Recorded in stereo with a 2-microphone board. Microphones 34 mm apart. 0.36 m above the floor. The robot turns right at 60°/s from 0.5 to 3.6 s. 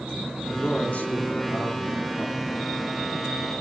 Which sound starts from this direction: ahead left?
A man speaking, at 0.5 s.